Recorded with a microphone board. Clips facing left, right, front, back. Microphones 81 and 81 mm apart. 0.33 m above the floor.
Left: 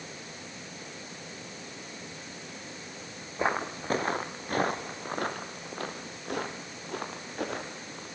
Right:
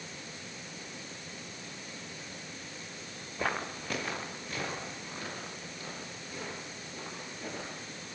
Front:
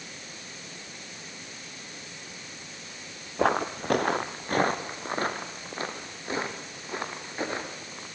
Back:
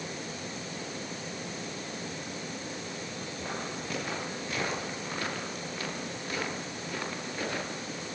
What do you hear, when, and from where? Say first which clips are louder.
3.4 s footsteps: left 5 dB, front 14 dB; 20° left, 1.5 m; by 8.1 s 70° left, 5.5 m